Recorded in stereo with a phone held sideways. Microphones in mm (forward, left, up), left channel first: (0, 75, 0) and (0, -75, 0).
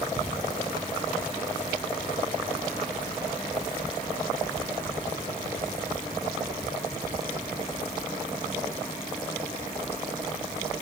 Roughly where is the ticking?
Centre.